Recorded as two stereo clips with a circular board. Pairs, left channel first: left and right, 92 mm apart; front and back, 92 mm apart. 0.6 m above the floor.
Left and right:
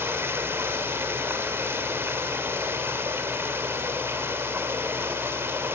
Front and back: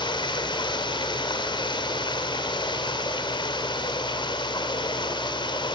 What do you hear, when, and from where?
0.0 s running water: 25° right, 2.5 m